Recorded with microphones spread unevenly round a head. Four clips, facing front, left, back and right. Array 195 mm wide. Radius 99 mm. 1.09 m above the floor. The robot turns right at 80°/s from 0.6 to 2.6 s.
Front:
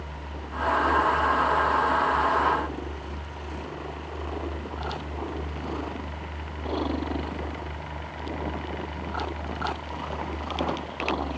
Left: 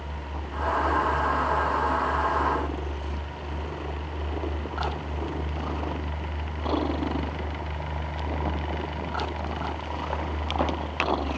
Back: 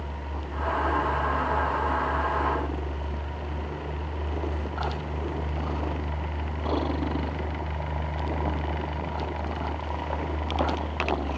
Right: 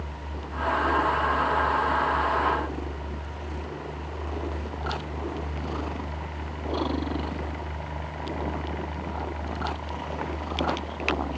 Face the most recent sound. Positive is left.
No sound to turn to.